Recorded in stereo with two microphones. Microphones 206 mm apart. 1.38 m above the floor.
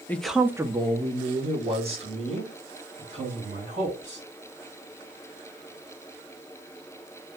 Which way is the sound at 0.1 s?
10° left (ahead or behind).